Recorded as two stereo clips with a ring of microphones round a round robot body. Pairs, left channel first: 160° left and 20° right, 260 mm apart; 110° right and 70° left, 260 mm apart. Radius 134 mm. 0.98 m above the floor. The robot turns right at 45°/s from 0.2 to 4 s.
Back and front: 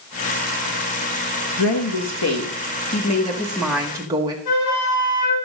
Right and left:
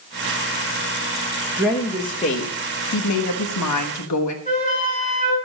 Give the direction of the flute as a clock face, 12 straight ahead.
6 o'clock.